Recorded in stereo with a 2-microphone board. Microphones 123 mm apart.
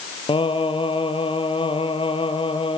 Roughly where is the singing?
Left.